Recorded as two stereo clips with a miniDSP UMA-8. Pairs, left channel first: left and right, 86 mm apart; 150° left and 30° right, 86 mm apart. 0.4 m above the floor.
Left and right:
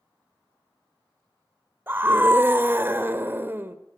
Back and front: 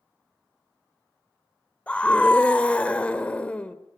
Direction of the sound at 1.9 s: 140° right.